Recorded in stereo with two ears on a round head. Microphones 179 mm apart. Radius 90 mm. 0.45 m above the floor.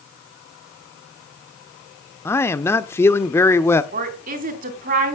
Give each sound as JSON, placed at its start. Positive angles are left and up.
{"t": 2.2, "sound": "a man speaking", "side_deg": 10, "distance_m": 0.8}
{"t": 3.9, "sound": "a woman speaking", "side_deg": -40, "distance_m": 3.0}